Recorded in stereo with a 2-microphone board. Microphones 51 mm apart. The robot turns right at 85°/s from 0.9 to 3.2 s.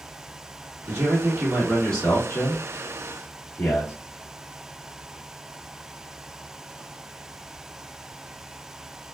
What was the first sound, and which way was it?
A man speaking, 70° right.